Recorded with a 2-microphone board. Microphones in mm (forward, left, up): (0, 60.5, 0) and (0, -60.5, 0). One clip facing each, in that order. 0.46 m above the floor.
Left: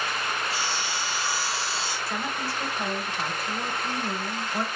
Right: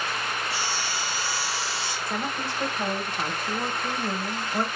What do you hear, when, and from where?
0.5 s sawing: 25° left (ahead or behind), 5 m
2.1 s a woman speaking: 20° right (ahead or behind), 1.7 m